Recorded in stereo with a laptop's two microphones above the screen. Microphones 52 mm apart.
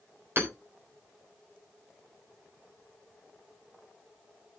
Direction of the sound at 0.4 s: 45° right (ahead or behind).